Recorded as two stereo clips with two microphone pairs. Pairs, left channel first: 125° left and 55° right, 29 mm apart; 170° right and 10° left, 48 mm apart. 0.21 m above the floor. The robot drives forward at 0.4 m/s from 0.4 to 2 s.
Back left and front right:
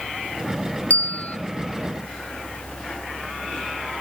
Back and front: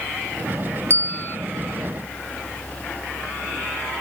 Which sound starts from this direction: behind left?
A bell, at 0.9 s.